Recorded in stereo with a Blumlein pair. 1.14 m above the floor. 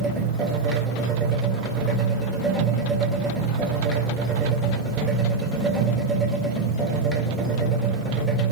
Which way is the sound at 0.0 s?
5° right.